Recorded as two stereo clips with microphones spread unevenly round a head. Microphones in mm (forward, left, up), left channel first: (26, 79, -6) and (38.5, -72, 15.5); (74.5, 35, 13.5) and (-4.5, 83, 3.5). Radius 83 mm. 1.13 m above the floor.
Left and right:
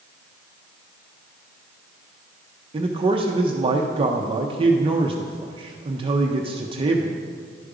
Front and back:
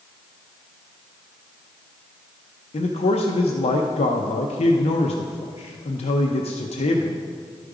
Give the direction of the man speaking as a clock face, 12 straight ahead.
1 o'clock.